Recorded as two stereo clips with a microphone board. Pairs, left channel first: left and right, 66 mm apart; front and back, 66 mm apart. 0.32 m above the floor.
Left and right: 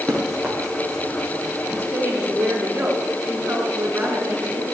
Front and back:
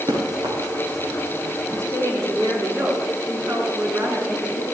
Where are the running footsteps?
175° left, 4 m; by 1.8 s straight behind, 5 m.